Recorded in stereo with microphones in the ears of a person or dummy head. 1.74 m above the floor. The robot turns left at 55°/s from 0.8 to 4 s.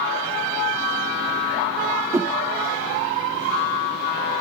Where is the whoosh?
10° right (ahead or behind), 0.6 m; by 2.4 s 5° left (ahead or behind), 0.6 m.